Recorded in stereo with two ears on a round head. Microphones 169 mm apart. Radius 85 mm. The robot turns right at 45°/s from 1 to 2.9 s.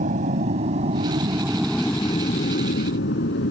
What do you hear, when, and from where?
0.0 s an aircraft: 40° right (ahead or behind); by 3.5 s 60° left (ahead or behind)